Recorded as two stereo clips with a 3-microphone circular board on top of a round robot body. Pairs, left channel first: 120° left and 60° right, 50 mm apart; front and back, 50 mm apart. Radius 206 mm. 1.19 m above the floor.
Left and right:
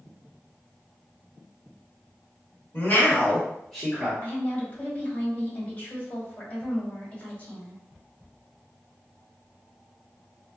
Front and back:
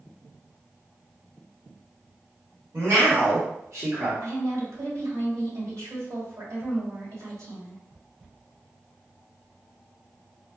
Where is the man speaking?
160° left, 1.3 m; by 4.1 s 135° right, 1.1 m.